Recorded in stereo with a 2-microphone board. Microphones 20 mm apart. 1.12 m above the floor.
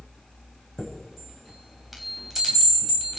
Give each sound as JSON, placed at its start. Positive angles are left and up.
{"t": 0.8, "sound": "a chime", "side_deg": -20, "distance_m": 5.0}